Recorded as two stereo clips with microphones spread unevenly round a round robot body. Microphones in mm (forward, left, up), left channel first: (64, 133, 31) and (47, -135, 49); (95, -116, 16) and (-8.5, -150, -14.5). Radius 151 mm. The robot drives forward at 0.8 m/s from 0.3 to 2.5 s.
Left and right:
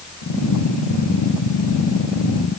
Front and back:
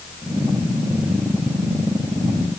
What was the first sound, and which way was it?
Only background noise.